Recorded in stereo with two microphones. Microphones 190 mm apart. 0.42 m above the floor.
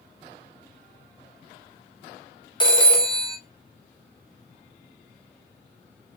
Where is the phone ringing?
25° left (ahead or behind), 0.6 m.